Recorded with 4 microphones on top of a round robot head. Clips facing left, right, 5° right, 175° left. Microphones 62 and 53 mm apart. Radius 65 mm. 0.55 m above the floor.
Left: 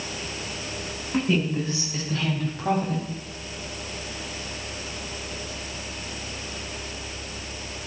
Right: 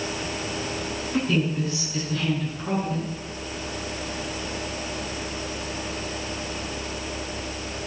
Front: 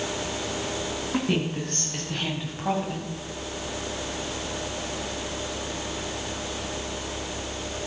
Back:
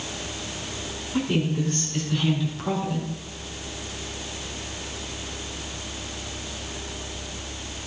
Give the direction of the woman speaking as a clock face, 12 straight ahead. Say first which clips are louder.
Left 1 dB, back 3 dB; 11 o'clock.